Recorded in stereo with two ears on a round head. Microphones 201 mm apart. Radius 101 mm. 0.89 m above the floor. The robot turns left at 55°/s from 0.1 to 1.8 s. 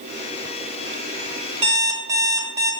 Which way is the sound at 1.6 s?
25° right (ahead or behind).